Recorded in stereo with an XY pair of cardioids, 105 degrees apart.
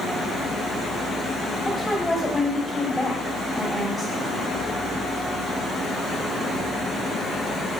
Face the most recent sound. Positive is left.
turn(degrees=10)